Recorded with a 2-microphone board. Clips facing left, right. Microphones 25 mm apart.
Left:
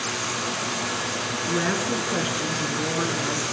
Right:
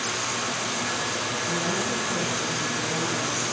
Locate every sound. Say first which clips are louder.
1.5 s a woman speaking: left 4 dB; 55° left (ahead or behind), 5.5 m